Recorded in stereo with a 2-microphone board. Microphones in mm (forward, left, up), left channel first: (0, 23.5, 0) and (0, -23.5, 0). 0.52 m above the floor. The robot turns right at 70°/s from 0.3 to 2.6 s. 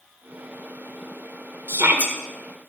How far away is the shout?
About 1.7 m.